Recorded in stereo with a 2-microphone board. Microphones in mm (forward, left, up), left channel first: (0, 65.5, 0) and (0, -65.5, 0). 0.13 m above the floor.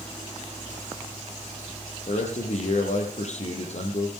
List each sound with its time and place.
2.1 s a man speaking: 60° left (ahead or behind), 4 m